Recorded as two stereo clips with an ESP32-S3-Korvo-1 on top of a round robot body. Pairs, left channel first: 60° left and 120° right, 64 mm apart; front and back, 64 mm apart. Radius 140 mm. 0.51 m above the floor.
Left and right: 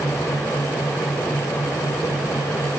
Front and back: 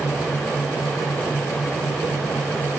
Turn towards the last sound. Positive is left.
No sound to turn to.